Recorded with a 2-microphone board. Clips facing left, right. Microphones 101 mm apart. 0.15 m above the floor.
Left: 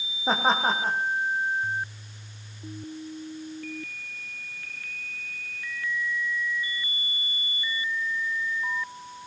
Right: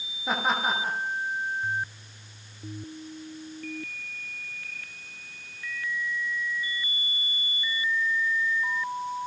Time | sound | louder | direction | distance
0.3 | laughter | left 3 dB | 30° left (ahead or behind) | 8 m